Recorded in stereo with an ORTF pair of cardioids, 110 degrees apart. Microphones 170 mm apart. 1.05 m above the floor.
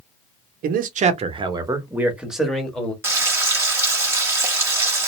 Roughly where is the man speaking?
Ahead right.